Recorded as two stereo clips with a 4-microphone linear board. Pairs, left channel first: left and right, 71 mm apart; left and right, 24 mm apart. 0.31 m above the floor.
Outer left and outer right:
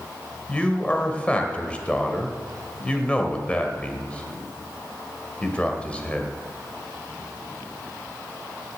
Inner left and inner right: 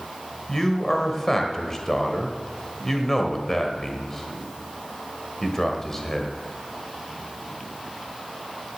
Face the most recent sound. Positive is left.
turn(degrees=15)  # may be behind; listen again after turning